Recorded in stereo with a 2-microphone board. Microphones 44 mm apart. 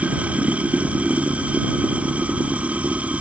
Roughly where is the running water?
Right.